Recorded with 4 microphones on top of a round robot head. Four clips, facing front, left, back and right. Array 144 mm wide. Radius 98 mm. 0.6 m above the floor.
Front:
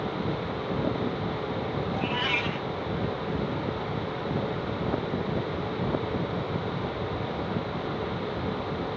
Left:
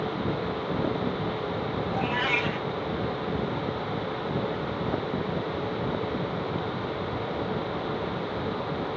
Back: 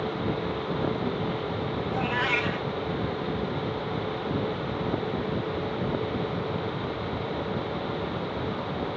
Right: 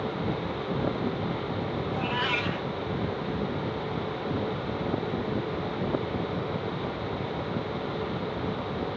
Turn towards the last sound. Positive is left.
turn(degrees=-140)